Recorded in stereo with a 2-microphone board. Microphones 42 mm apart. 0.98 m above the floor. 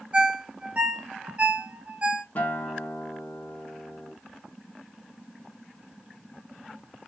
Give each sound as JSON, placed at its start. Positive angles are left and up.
{"t": 0.1, "sound": "a ringtone", "side_deg": -35, "distance_m": 0.6}
{"t": 2.4, "sound": "a guitar", "side_deg": 40, "distance_m": 0.9}